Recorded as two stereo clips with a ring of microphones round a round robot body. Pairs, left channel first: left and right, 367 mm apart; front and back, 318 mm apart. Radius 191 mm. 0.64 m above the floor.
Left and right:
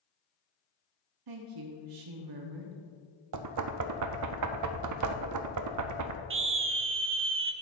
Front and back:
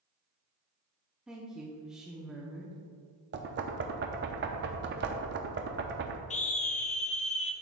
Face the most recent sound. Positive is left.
turn(degrees=-55)